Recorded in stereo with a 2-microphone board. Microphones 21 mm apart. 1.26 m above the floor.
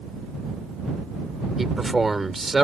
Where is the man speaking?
5° right (ahead or behind).